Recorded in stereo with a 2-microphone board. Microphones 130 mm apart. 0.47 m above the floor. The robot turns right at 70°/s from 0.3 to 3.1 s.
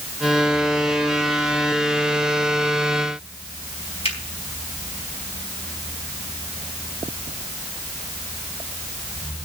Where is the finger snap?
50° left (ahead or behind), 4.5 m.